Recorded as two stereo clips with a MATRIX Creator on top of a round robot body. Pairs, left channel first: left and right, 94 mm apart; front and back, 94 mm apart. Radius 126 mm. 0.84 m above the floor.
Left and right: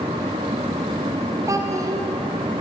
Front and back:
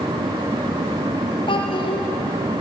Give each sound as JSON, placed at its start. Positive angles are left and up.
{"t": 1.5, "sound": "a child speaking", "azimuth_deg": -35, "distance_m": 2.5}